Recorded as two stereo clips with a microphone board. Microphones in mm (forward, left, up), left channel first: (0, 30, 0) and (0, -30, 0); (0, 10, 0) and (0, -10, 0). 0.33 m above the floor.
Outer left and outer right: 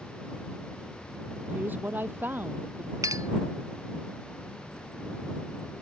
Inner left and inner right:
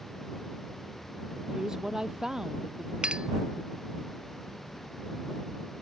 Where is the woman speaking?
30° right (ahead or behind); by 2.9 s 35° right (ahead or behind).